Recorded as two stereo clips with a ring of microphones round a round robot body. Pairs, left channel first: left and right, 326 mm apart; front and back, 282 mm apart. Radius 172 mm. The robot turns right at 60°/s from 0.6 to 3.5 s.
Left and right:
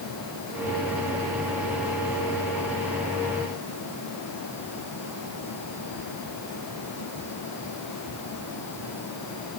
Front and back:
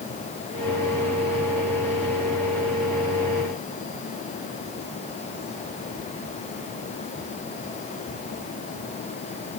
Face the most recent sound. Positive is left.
No sound to turn to.